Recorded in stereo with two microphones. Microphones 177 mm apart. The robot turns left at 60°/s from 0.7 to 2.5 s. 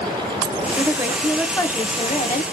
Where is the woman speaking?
145° right, 0.7 m; by 2.4 s 115° left, 0.7 m.